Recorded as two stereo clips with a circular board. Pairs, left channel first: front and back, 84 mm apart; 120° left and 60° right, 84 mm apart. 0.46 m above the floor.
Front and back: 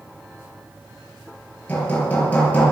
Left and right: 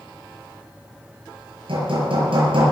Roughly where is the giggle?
I don't hear a giggle.